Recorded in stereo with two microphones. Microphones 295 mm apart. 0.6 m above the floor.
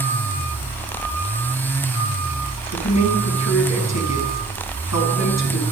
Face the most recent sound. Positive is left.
turn(degrees=65)  # may be behind; listen again after turning